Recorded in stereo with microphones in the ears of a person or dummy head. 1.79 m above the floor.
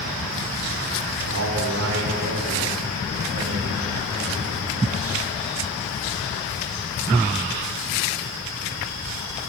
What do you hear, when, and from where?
1.2 s a man speaking: 75° right (ahead or behind), 5 m; by 5.3 s 40° right (ahead or behind), 8 m